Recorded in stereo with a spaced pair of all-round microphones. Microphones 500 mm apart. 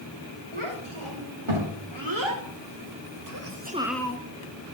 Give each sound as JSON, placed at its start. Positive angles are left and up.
{"t": 0.5, "sound": "a child speaking", "side_deg": -75, "distance_m": 4.5}